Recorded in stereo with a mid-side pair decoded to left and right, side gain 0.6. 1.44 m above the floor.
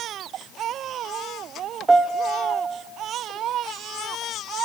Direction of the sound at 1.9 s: 20° right.